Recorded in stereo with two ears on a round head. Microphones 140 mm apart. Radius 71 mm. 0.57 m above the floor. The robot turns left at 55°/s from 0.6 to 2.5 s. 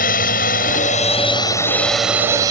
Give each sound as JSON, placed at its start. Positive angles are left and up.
{"t": 0.0, "sound": "a drone", "azimuth_deg": 75}